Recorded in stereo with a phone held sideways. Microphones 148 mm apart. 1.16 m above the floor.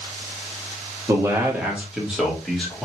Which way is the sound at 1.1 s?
20° right (ahead or behind).